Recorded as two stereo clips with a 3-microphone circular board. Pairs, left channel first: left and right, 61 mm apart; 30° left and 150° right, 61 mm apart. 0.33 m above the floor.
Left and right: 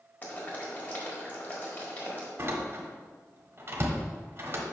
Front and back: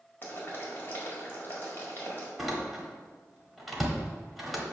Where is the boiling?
55° left, 1.6 m.